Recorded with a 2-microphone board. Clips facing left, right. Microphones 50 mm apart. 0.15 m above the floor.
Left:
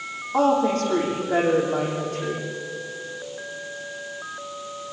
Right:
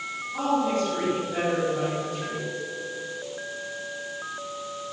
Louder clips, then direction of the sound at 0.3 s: Left 5 dB; 55° left (ahead or behind).